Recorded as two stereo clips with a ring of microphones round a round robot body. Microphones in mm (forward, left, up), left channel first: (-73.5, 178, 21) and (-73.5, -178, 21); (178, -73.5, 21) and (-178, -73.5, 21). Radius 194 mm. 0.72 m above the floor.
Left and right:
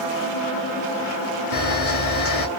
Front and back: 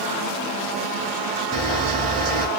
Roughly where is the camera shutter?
Behind left.